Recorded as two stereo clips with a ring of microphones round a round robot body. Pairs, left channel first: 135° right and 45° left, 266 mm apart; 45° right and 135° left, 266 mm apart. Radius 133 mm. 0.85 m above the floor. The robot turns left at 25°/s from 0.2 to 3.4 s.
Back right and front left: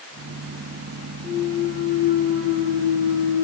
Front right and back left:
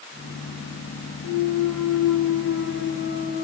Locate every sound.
1.2 s a clunk: 60° right, 1.2 m; by 3.4 s 110° right, 1.2 m